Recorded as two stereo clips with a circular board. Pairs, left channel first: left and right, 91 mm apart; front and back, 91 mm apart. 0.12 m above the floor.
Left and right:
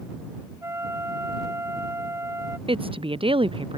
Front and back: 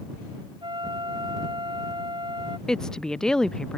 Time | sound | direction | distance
0.6 | a flute | 150° right | ?
2.7 | a woman speaking | 85° right | ?